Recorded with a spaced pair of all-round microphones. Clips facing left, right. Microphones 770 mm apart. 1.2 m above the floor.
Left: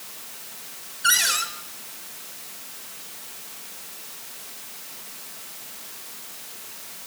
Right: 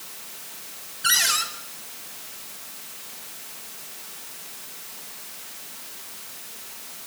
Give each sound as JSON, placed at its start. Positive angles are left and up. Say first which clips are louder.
{"t": 1.0, "sound": "a cupboard door", "louder": "left 1 dB", "side_deg": -35, "distance_m": 3.5}